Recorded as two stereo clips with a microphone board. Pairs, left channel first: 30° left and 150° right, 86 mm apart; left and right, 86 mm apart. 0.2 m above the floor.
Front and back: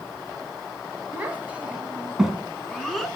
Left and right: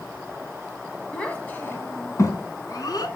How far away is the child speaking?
About 1.1 m.